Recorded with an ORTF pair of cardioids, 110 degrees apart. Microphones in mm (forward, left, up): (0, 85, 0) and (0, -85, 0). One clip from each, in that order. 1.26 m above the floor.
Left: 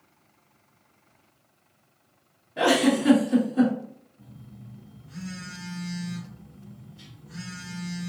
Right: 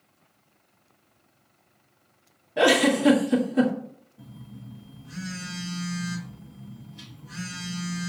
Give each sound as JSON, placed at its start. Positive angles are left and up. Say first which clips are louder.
{"t": 2.6, "sound": "a giggle", "louder": "right 2 dB", "azimuth_deg": -25, "distance_m": 1.5}
{"t": 4.2, "sound": "a phone buzzing", "louder": "right 3 dB", "azimuth_deg": -60, "distance_m": 1.3}